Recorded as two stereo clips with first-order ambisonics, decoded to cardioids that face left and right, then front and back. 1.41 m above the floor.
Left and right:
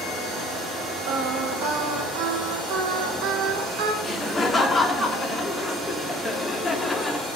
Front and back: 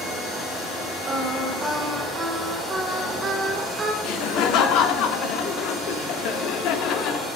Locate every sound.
1.1 s singing: 105° right, 1.0 m
4.0 s laughter: 10° left, 0.6 m